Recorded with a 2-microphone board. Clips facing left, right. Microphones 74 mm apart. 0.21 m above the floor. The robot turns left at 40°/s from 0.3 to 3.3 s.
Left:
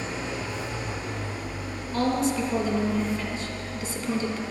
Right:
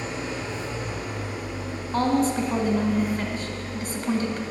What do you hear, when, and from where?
0.0 s an engine running: 20° right, 3.5 m; by 4.5 s 140° right, 3.5 m
1.9 s a woman speaking: 60° right, 1.7 m; by 4.4 s 115° right, 1.7 m